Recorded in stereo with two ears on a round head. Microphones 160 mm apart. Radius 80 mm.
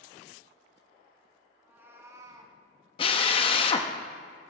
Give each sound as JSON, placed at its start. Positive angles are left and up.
{"t": 1.6, "sound": "a cat meowing", "side_deg": -10, "distance_m": 2.0}
{"t": 3.0, "sound": "a drill", "side_deg": 30, "distance_m": 0.8}